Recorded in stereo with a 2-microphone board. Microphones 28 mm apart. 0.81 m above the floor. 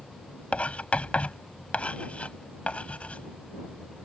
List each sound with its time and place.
0.5 s writing: 45° left (ahead or behind)